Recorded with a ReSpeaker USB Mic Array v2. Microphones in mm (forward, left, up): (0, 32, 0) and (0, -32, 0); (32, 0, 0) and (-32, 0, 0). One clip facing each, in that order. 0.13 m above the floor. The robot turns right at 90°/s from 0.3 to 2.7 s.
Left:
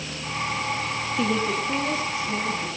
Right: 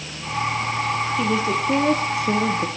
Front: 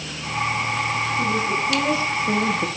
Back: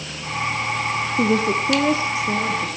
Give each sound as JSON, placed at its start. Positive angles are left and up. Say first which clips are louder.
{"t": 1.2, "sound": "a woman speaking", "louder": "even, back 6 dB", "azimuth_deg": 170, "distance_m": 3.0}